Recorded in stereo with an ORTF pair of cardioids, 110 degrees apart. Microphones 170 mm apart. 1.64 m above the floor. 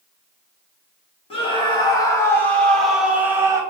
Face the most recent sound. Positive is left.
turn(degrees=-20)